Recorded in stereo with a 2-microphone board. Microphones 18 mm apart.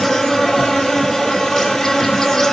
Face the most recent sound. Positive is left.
turn(degrees=20)  # may be behind; listen again after turning